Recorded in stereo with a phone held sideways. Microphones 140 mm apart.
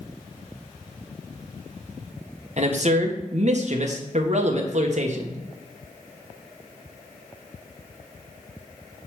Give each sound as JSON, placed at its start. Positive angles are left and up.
{"t": 2.6, "sound": "a man speaking", "side_deg": -55, "distance_m": 1.2}